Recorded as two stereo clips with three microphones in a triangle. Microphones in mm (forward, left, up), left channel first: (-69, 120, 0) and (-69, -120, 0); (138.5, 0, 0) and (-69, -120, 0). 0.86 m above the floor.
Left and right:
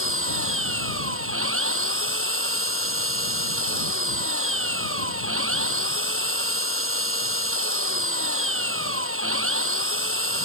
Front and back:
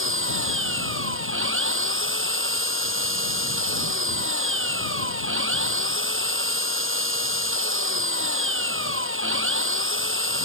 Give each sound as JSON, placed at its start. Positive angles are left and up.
{"t": 0.0, "sound": "an engine running", "azimuth_deg": -120}